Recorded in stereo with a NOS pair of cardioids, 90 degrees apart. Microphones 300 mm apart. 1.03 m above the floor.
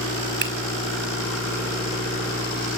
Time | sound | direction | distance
0.4 | a finger snap | 40° right | 4.5 m